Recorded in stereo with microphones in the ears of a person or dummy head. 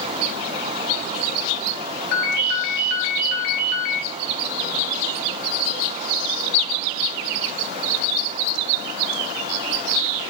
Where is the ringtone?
50° left (ahead or behind), 1.4 m.